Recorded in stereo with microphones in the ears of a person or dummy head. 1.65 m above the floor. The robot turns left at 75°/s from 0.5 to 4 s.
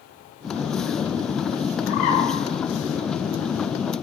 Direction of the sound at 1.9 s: 65° left (ahead or behind).